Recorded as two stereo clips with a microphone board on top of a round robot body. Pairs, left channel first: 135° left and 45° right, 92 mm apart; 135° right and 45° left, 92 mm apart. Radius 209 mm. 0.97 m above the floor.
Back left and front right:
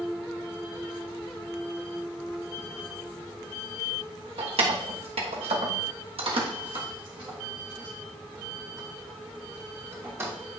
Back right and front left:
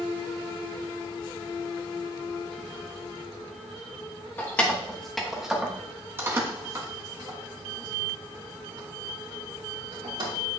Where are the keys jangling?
65° right, 1.2 m; by 10.3 s 20° left, 3 m.